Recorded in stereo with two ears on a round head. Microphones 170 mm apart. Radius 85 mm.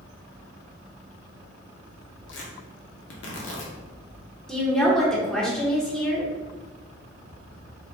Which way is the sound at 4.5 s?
5° left (ahead or behind).